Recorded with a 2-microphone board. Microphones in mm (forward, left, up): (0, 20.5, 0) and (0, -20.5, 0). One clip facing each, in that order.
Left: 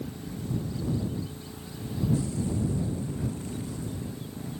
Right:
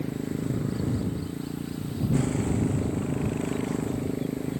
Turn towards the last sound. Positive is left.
turn(degrees=-55)  # may be behind; listen again after turning